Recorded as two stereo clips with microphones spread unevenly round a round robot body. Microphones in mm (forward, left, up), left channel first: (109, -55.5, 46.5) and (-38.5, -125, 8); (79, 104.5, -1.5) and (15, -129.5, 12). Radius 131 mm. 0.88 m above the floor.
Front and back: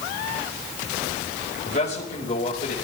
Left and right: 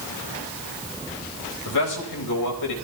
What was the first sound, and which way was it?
A man speaking, 85° left.